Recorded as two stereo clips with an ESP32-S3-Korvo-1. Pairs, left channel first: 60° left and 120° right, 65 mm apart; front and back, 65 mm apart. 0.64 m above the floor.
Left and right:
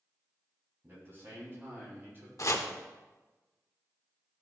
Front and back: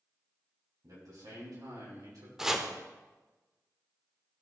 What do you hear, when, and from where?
0.8 s a man speaking: 170° right, 4.5 m; by 2.3 s 175° right, 5 m
2.4 s chopping: 95° left, 0.9 m